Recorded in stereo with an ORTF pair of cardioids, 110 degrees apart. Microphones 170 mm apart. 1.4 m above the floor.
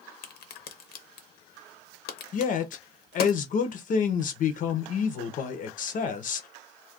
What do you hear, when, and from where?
0.2 s a crack: 65° left, 0.7 m
2.3 s a man speaking: 50° left, 0.6 m